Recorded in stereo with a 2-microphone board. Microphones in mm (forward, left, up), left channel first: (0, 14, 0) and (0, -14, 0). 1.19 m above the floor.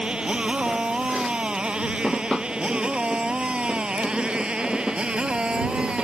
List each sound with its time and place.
0.0 s a motorcycle: 35° right (ahead or behind); by 6.0 s 40° right (ahead or behind)